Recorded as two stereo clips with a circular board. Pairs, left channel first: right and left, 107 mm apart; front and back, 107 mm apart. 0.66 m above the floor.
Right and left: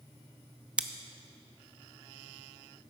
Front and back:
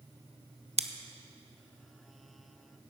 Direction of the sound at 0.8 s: 170° left.